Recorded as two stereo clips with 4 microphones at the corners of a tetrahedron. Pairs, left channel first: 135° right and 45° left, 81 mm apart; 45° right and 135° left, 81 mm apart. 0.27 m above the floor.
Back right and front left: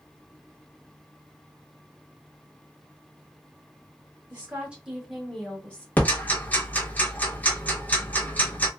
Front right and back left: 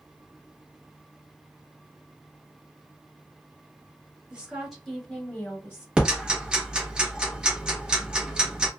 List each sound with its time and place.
4.3 s a woman speaking: 75° left, 1.0 m; by 5.9 s 75° right, 1.1 m
6.0 s ticking: 165° right, 0.9 m